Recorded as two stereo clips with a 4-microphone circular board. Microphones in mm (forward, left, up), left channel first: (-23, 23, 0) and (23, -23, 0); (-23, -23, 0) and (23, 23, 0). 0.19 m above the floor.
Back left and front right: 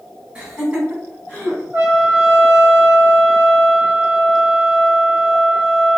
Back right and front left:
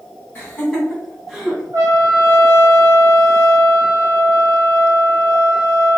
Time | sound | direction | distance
0.3 | laughter | 100° right | 1.8 m
1.7 | a trumpet | 15° left | 1.2 m